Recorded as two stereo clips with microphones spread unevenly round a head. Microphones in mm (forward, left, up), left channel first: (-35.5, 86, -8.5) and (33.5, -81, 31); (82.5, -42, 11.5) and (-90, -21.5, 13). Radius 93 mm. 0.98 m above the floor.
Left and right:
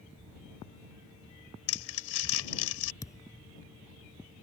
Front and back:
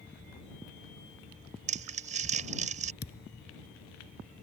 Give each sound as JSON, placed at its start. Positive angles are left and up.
{"t": 1.7, "sound": "crumpling", "azimuth_deg": 120}
{"t": 3.0, "sound": "a thud", "azimuth_deg": 35}